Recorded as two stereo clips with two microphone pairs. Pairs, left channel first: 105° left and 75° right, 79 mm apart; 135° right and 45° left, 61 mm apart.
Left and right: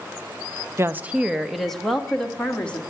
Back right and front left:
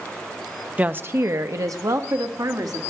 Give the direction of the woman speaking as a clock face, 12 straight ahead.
1 o'clock.